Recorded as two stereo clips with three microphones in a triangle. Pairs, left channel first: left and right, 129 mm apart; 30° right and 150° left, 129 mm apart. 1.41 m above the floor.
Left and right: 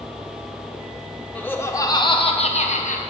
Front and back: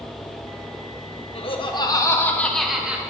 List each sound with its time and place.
1.4 s laughter: 10° left, 1.3 m; by 3.0 s 70° left, 1.3 m